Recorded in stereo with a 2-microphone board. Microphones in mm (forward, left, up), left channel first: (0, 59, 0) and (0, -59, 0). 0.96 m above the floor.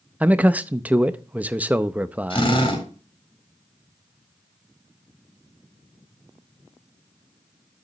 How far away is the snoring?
I don't hear snoring.